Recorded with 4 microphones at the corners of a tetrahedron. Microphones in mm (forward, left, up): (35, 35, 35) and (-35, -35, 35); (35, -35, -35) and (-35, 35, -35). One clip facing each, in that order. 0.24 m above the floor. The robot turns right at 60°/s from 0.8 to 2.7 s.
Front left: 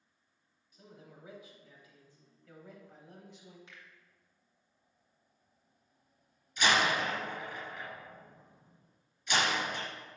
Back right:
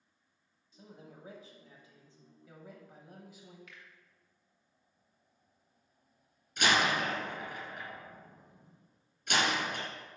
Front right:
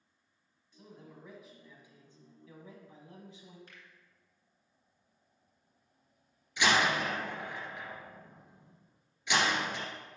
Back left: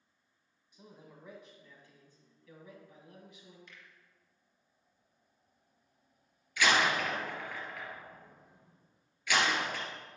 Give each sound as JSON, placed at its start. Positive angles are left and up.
{"t": 0.7, "sound": "a man speaking", "azimuth_deg": -170, "distance_m": 1.4}
{"t": 3.7, "sound": "a finger snap", "azimuth_deg": -10, "distance_m": 2.0}
{"t": 6.6, "sound": "a door slam", "azimuth_deg": -110, "distance_m": 3.0}